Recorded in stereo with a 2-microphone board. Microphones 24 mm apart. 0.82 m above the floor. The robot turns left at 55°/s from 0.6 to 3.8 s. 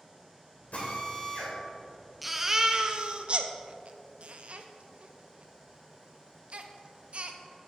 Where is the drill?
65° left, 2.5 m; by 1.6 s 20° left, 2.5 m.